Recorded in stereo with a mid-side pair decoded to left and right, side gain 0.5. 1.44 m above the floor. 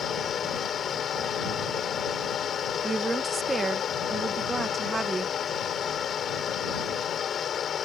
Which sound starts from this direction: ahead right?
A woman speaking, at 2.8 s.